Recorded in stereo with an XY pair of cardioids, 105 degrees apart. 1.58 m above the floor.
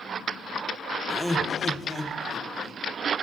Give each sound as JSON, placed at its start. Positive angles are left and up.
{"t": 1.1, "sound": "laughter", "azimuth_deg": 5, "distance_m": 1.5}